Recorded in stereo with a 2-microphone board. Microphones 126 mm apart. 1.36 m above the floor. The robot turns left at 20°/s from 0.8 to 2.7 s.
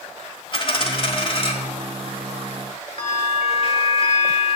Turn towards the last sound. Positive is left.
turn(degrees=45)  # may be behind; listen again after turning